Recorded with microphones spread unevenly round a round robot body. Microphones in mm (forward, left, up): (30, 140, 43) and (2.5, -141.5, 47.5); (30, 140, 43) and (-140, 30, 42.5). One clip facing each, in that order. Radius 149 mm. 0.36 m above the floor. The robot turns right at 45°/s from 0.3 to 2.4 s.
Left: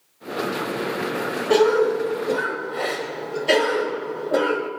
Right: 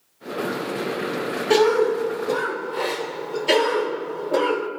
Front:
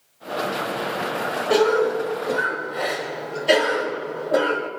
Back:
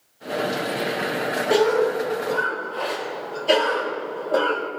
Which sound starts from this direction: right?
A cough, at 1.5 s.